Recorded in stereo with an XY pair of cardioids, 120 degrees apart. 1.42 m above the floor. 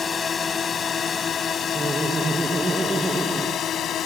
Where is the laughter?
20° right.